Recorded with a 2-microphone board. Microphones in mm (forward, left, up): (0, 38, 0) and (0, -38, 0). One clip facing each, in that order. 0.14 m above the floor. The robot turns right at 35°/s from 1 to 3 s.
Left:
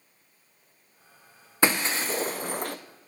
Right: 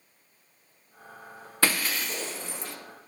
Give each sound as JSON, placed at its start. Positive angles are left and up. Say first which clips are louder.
{"t": 1.6, "sound": "breaking glass", "louder": "left 3 dB", "azimuth_deg": 20, "distance_m": 0.6}